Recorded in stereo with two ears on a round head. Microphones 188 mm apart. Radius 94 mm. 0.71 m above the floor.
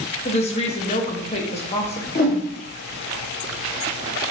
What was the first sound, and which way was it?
A woman speaking, 30° left (ahead or behind).